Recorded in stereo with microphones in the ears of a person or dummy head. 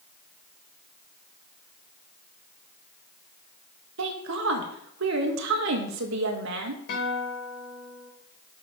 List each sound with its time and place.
4.0 s a woman speaking: 60° right (ahead or behind), 1.3 m
6.9 s a guitar: 60° left (ahead or behind), 2.5 m